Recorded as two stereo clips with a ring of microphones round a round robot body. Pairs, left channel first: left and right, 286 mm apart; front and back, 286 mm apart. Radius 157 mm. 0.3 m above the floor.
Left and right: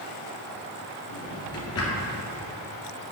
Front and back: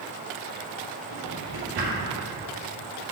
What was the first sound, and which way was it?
A drawer, 125° left.